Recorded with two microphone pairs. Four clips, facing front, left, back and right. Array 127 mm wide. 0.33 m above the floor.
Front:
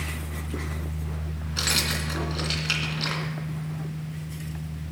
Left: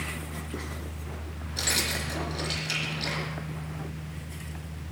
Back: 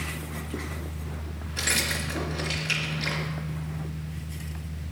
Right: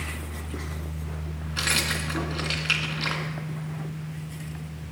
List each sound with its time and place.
1.6 s keys jangling: 60° right, 2.5 m